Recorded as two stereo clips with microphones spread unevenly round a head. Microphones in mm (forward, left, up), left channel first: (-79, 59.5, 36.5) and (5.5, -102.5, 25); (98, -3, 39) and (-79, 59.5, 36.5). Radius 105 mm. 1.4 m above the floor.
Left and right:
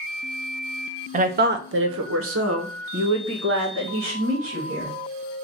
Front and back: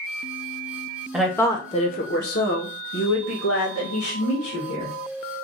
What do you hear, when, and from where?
1.1 s a woman speaking: 110° right, 0.7 m; by 4.9 s 30° right, 2 m